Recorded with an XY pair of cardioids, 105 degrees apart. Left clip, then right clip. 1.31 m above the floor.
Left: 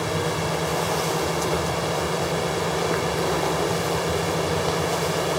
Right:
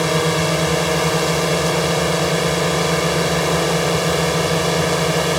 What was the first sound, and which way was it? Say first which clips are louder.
A drone: right 7 dB; 60° right.